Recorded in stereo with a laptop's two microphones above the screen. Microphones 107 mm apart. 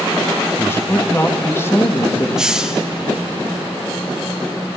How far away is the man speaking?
About 1.2 m.